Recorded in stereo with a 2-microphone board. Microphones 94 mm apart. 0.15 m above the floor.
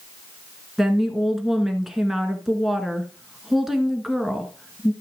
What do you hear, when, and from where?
0.8 s a woman speaking: centre (ahead or behind), 1.8 m